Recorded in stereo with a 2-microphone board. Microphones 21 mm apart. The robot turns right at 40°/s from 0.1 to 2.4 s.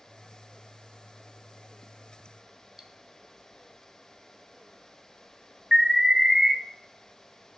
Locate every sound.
2.8 s cutlery clinking: 20° right (ahead or behind), 1.0 m
5.7 s an alarm: 20° right (ahead or behind), 1.7 m